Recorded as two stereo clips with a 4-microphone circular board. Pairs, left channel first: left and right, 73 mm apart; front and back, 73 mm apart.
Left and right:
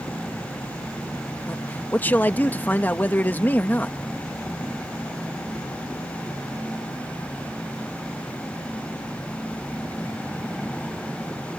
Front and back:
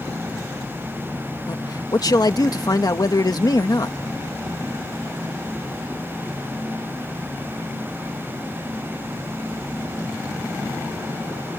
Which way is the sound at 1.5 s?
25° left.